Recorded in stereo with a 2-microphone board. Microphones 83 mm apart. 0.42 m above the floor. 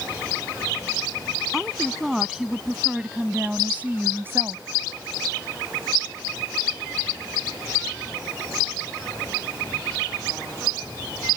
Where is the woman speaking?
Centre (ahead or behind); by 4.7 s 35° right (ahead or behind).